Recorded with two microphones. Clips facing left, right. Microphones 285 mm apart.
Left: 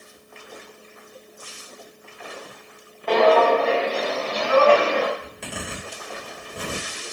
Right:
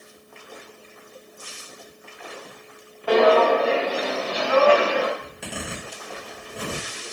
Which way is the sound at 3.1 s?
10° right (ahead or behind).